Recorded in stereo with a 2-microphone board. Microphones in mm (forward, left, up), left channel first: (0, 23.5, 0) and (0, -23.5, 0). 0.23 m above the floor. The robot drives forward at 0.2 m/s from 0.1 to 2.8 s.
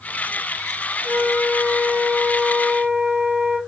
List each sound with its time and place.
1.0 s a flute: 50° right (ahead or behind), 1.4 m; by 3.6 s 60° right (ahead or behind), 1.2 m